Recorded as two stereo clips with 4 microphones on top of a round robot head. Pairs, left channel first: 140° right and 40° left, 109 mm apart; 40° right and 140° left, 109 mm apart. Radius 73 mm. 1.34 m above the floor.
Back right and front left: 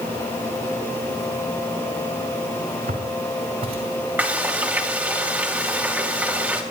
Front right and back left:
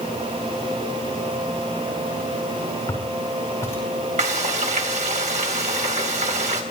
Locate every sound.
2.9 s footsteps: 25° left, 5.5 m
4.2 s frying: 115° left, 2.5 m